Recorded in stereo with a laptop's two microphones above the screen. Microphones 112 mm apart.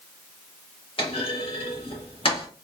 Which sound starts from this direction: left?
A clunk, at 1.0 s.